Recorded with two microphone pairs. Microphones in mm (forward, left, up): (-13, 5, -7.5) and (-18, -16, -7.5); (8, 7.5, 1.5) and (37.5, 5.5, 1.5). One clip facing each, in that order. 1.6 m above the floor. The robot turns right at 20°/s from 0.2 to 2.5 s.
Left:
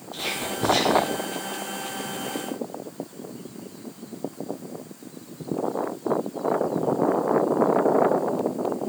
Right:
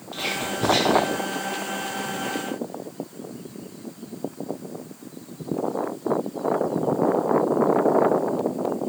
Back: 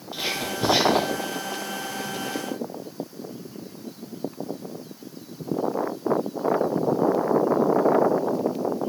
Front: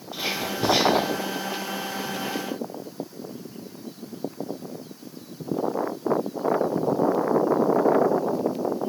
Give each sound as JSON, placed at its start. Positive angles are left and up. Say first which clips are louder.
{"t": 0.1, "sound": "whispering", "louder": "right 2 dB, even", "azimuth_deg": -100, "distance_m": 1.0}